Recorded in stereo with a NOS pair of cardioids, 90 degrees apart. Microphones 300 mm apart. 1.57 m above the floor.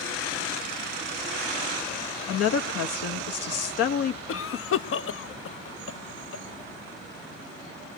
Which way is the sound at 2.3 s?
55° left.